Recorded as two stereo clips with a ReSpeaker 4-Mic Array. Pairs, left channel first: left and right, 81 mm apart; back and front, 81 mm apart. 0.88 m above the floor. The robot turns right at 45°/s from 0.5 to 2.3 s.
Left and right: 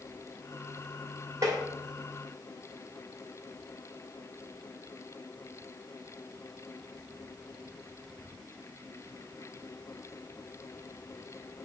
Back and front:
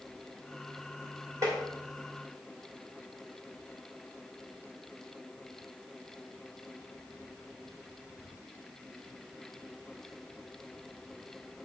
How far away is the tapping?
About 2 m.